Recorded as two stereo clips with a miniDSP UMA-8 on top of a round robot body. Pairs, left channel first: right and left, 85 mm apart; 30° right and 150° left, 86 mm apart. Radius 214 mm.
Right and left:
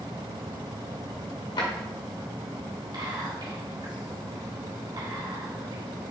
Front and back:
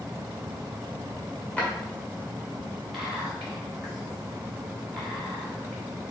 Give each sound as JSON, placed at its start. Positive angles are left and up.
{"t": 1.6, "sound": "a drawer", "azimuth_deg": -105, "distance_m": 1.4}
{"t": 2.9, "sound": "whispering", "azimuth_deg": 65, "distance_m": 2.5}